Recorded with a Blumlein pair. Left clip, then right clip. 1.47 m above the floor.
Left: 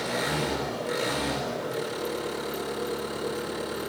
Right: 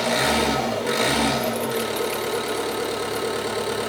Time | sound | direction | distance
0.0 | an engine running | 30° right | 3 m